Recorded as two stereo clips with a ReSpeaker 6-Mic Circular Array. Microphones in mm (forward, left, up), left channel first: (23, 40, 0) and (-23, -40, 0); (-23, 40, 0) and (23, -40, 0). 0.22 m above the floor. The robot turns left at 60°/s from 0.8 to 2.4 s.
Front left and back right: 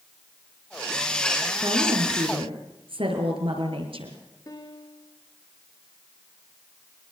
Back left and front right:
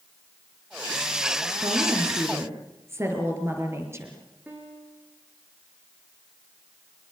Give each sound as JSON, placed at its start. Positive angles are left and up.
{"t": 1.6, "sound": "a woman speaking", "azimuth_deg": -70, "distance_m": 5.0}
{"t": 4.5, "sound": "a piano", "azimuth_deg": 10, "distance_m": 3.5}